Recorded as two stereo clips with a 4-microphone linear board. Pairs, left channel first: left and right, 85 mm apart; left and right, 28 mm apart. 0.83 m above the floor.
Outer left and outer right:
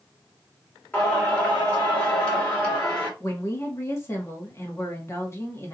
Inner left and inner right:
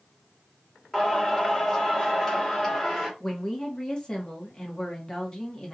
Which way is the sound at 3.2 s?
30° left (ahead or behind).